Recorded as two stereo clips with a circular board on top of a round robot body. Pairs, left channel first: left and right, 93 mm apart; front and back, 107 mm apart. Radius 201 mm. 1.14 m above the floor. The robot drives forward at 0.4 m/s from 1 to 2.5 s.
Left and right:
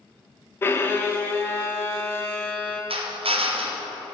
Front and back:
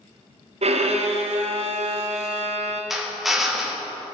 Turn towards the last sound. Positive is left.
turn(degrees=-90)